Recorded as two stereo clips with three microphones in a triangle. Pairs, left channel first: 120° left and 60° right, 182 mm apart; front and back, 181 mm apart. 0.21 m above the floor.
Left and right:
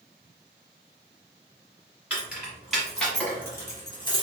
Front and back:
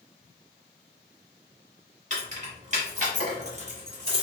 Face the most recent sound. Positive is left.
turn(degrees=150)